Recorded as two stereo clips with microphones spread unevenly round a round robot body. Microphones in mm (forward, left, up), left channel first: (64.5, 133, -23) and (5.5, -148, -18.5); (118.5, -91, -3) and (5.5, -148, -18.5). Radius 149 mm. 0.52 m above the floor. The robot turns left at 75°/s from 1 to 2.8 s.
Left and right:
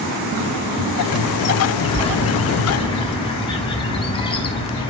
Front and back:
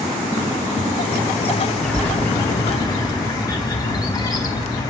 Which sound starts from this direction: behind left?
A bird, at 1.8 s.